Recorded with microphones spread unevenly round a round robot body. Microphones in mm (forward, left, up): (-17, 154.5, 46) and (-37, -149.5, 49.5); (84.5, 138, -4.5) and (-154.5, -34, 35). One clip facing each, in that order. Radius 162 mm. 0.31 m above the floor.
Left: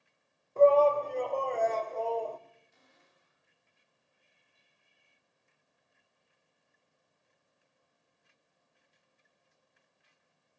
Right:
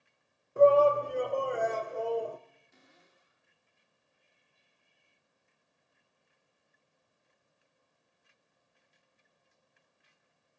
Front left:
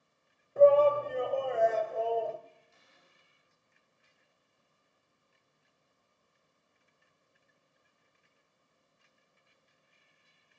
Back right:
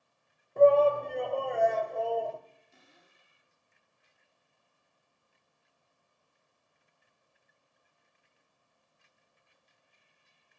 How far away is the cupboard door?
About 5 m.